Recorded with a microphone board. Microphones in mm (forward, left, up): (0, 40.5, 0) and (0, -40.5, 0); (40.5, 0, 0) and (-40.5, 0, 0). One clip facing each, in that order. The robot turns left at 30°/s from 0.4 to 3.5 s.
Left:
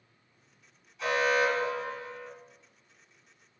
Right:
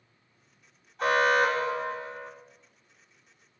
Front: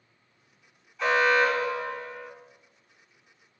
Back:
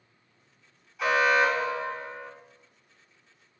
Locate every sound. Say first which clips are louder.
1.0 s an alarm: right 3 dB, even; 100° right, 1.5 m; by 2.3 s 140° right, 1.5 m